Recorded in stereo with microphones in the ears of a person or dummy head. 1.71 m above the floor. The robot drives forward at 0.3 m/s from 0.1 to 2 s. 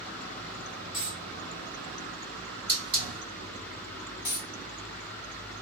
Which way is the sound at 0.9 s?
25° right (ahead or behind).